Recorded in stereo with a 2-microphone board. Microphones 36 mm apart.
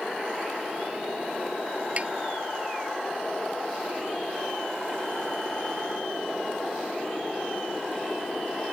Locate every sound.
2.0 s tapping: 35° right (ahead or behind)